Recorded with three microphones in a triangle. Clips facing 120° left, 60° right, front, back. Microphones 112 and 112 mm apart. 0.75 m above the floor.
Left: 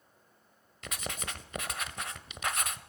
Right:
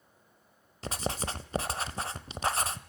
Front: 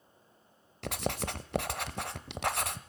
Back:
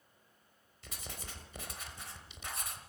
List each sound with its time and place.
0.8 s writing: 5° right, 1.1 m